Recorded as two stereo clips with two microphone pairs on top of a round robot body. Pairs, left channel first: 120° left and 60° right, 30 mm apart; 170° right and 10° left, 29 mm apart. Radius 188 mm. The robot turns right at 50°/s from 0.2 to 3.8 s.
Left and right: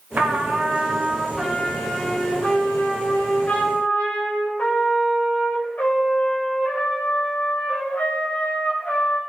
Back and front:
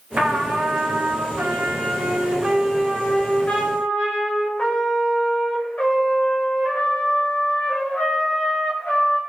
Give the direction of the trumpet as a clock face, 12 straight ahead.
1 o'clock.